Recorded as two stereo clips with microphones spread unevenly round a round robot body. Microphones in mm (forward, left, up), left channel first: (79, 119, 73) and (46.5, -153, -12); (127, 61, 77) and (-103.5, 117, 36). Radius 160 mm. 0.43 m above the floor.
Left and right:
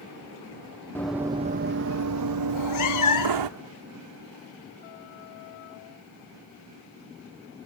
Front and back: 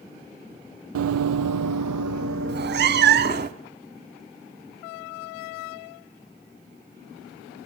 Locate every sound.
0.9 s running footsteps: 145° left, 0.6 m; by 3.5 s 125° right, 1.3 m
2.5 s a cat meowing: 115° left, 0.9 m